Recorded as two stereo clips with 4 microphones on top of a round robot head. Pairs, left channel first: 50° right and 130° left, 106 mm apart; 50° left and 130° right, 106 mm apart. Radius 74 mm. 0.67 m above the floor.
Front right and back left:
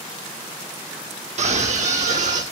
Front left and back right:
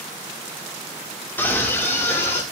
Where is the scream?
120° left, 1.6 m.